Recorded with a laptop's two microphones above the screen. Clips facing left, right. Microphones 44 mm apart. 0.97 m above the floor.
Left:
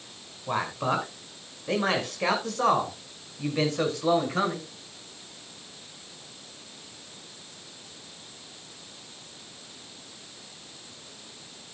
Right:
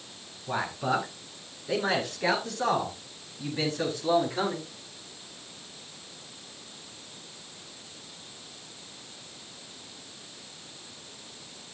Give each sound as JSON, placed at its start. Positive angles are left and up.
{"t": 0.5, "sound": "a man speaking", "side_deg": 65, "distance_m": 5.0}